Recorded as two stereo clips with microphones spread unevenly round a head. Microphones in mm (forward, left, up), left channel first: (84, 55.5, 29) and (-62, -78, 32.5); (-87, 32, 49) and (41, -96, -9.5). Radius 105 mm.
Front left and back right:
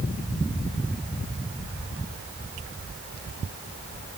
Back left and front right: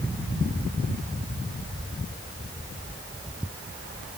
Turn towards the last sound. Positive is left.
No sound to turn to.